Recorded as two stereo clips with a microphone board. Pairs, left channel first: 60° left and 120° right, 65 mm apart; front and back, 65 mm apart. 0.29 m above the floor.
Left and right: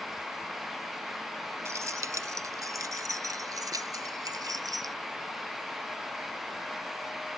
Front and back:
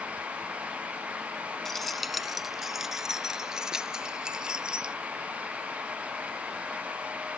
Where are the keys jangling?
85° right; by 5.0 s 105° right.